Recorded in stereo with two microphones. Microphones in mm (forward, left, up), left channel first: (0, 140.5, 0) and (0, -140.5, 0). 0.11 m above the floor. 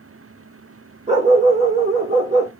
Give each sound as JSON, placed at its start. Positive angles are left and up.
{"t": 1.1, "sound": "a dog barking", "side_deg": -25, "distance_m": 1.6}